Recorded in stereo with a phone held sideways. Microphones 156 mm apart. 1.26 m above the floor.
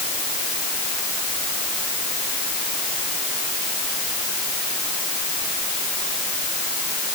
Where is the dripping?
No dripping in this recording.